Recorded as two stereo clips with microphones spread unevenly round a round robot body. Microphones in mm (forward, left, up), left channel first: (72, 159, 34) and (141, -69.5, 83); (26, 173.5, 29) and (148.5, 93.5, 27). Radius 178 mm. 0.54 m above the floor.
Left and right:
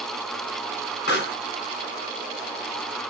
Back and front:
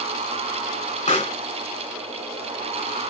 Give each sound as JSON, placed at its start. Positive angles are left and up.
{"t": 1.1, "sound": "a pop", "azimuth_deg": 120, "distance_m": 2.0}